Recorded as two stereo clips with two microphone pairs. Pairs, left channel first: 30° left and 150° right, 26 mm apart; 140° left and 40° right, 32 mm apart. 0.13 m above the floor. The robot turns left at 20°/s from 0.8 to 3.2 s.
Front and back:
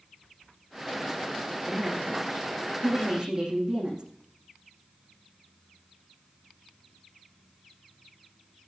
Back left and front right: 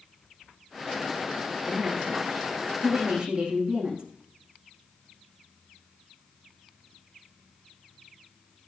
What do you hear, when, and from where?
1.7 s a woman speaking: 55° right, 7 m; by 4.0 s 90° right, 7 m